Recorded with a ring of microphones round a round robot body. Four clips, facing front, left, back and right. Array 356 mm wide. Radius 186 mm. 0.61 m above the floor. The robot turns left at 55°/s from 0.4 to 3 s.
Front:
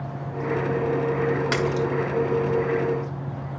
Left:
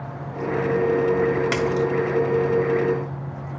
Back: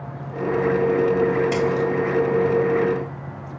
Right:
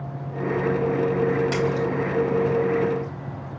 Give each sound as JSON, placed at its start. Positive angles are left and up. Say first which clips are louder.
{"t": 1.5, "sound": "a splash", "louder": "left 2 dB, back 3 dB", "azimuth_deg": 35, "distance_m": 1.7}